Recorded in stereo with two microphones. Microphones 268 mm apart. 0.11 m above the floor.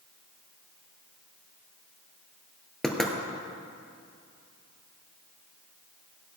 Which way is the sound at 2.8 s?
Centre (ahead or behind).